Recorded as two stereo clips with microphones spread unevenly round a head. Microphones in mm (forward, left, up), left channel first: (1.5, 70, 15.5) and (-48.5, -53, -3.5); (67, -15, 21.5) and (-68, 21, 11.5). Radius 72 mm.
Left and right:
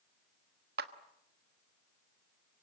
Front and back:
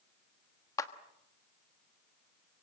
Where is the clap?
85° right, 1.3 m.